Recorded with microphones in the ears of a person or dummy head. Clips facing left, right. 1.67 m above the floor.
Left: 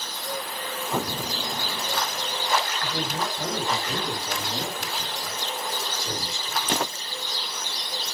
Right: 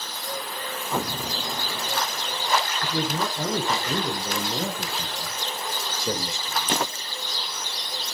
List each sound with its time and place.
2.8 s a man speaking: 70° right (ahead or behind), 6.5 m; by 6.8 s 45° right (ahead or behind), 7 m